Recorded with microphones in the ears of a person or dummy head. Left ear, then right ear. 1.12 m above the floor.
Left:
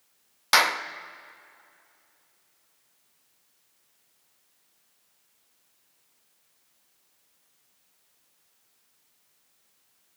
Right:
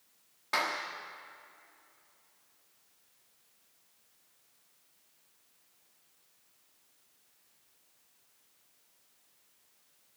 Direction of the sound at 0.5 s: 70° left (ahead or behind).